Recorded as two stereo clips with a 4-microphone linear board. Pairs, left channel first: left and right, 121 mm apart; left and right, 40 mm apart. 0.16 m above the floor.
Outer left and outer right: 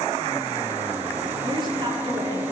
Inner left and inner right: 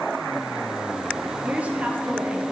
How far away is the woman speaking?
About 3.5 m.